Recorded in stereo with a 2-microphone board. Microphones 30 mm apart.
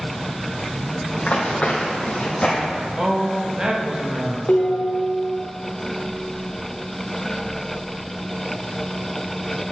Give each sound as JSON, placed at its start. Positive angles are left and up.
{"t": 1.1, "sound": "running footsteps", "side_deg": 45, "distance_m": 1.6}
{"t": 3.0, "sound": "a man speaking", "side_deg": -25, "distance_m": 0.8}
{"t": 4.5, "sound": "dishes clattering", "side_deg": 80, "distance_m": 1.3}